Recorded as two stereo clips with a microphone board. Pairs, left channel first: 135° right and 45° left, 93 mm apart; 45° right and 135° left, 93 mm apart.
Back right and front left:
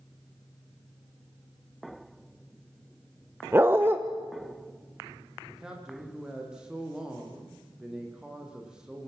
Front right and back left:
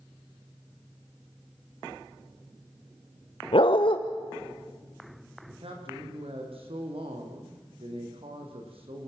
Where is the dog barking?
20° right, 2 m.